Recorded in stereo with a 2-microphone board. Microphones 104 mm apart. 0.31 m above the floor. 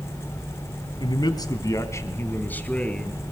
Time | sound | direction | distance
1.0 | a man speaking | 45° left (ahead or behind) | 2.5 m